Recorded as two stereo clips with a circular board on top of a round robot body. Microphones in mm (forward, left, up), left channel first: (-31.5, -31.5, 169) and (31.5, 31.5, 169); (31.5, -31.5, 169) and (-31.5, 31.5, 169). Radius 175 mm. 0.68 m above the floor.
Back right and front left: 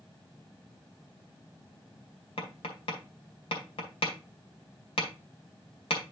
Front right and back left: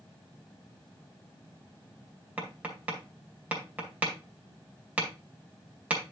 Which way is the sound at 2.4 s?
150° right.